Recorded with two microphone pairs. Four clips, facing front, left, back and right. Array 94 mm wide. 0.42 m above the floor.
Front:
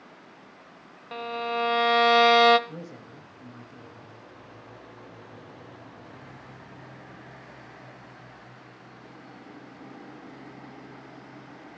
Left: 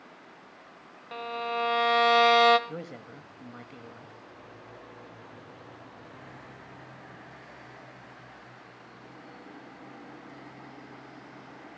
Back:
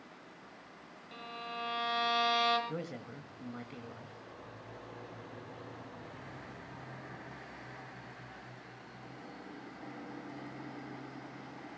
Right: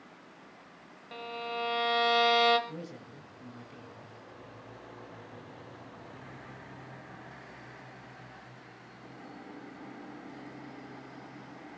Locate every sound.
1.1 s a violin: 30° left, 1.0 m
2.7 s a man speaking: 105° left, 1.9 m